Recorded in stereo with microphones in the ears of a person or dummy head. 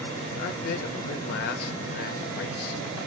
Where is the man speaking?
50° left (ahead or behind), 0.7 m.